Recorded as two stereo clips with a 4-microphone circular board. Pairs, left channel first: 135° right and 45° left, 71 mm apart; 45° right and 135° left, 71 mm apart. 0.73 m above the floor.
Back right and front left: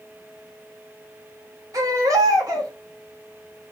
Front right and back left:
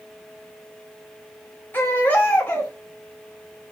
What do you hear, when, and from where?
1.7 s a baby crying: 15° left, 1.1 m